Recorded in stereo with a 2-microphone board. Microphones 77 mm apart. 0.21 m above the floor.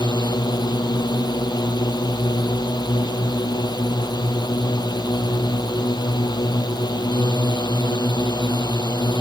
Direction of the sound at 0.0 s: 70° left (ahead or behind).